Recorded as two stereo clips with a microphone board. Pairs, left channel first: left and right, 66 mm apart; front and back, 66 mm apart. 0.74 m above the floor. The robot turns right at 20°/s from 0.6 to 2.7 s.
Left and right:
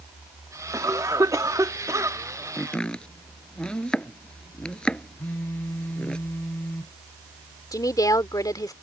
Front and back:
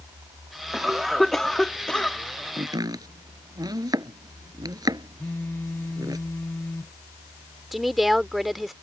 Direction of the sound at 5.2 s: 45° left.